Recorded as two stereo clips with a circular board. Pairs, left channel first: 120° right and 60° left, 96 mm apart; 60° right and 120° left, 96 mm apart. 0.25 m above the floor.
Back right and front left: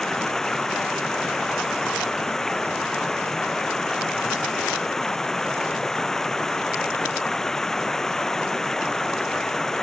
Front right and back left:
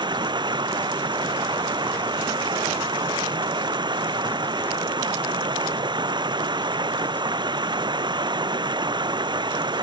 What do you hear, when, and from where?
0.0 s running water: 155° left